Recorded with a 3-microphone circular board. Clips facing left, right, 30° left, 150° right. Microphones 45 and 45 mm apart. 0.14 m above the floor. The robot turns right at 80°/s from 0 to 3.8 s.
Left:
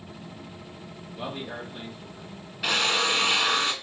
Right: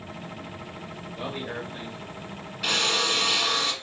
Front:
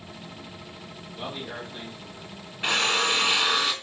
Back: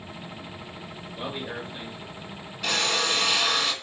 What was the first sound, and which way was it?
A man speaking, 105° right.